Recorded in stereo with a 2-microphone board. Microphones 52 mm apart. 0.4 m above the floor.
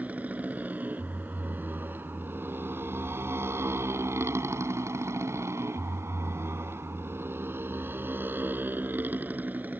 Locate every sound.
0.0 s a motorcycle: 35° right (ahead or behind)